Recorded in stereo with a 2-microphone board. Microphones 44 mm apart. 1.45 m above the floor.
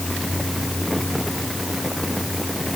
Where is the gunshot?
I don't hear a gunshot.